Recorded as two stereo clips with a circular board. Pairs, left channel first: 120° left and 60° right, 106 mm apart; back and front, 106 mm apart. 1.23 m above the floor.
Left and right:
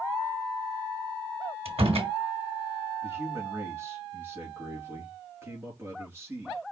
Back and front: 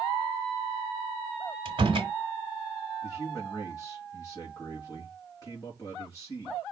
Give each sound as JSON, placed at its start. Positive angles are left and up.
{"t": 1.6, "sound": "a door slam", "azimuth_deg": -35, "distance_m": 2.5}
{"t": 3.0, "sound": "a man speaking", "azimuth_deg": -125, "distance_m": 3.5}